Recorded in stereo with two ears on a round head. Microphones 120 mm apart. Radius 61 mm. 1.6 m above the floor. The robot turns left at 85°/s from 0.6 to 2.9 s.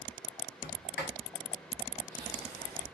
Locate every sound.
0.6 s a sliding door: 65° left (ahead or behind), 0.8 m; by 2.9 s 70° right (ahead or behind), 0.8 m